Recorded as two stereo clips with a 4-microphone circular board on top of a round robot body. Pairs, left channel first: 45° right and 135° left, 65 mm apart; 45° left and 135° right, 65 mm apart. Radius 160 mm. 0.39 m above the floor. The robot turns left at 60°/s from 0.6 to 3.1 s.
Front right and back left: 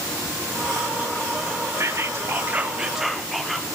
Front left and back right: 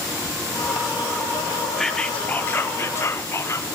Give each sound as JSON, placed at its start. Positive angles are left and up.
{"t": 1.8, "sound": "whispering", "azimuth_deg": 130, "distance_m": 1.3}